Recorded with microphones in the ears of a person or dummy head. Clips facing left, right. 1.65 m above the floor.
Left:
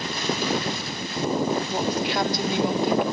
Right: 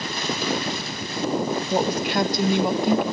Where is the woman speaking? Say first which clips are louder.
Right 2 dB; 50° right (ahead or behind), 2 m.